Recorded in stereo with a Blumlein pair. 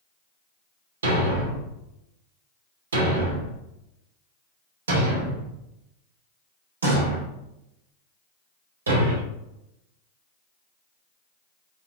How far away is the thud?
About 2.5 m.